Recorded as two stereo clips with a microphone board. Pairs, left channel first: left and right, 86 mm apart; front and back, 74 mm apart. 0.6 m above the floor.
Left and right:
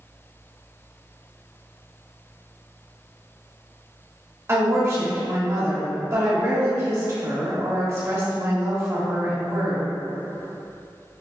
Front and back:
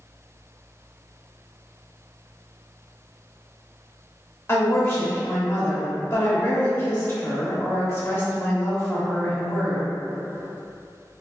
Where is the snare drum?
I don't hear a snare drum.